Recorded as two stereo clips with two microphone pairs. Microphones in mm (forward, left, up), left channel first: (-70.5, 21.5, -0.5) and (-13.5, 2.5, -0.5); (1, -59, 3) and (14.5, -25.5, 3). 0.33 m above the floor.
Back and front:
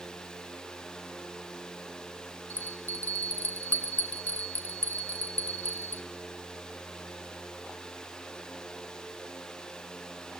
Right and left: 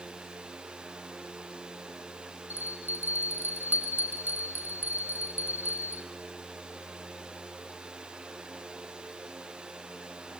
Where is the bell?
100° left, 1.1 m.